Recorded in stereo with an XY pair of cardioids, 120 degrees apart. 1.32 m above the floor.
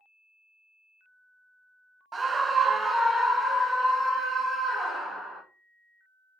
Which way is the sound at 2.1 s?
30° right.